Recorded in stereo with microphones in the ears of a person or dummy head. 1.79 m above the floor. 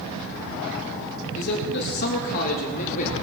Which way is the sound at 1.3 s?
65° left (ahead or behind).